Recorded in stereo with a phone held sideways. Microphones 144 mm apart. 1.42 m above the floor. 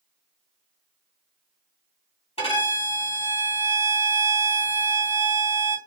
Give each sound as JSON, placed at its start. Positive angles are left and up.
{"t": 2.4, "sound": "a violin", "side_deg": 45, "distance_m": 2.5}